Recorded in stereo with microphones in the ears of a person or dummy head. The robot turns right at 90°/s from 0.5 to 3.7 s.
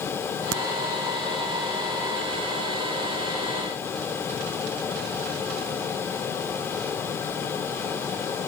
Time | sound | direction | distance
0.5 | a crack | 55° right (ahead or behind) | ?